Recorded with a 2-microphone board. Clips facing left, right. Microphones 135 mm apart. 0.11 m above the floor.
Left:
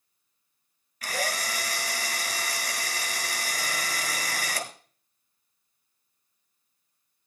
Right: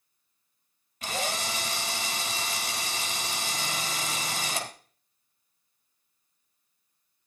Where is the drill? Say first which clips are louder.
Left 1 dB; 25° right (ahead or behind), 1.4 m.